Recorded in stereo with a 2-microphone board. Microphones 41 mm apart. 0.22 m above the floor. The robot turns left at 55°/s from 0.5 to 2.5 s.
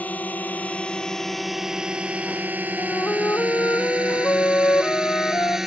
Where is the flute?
80° left.